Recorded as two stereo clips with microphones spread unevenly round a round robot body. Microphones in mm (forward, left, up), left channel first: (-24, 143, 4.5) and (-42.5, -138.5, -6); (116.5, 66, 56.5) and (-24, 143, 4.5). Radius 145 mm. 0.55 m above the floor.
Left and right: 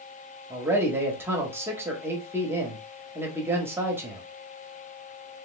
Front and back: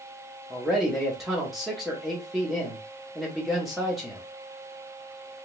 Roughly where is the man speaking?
Behind.